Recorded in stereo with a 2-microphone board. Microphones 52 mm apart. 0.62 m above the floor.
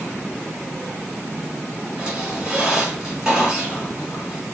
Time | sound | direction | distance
2.0 | a squeak | 10° right (ahead or behind) | 3 m